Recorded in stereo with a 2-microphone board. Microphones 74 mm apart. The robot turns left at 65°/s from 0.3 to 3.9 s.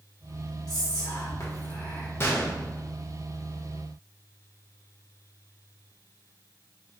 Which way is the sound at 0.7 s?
105° left.